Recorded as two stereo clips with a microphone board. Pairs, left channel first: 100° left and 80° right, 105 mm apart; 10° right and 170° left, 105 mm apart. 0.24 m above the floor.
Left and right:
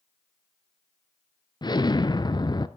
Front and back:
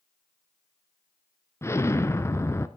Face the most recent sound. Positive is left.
turn(degrees=50)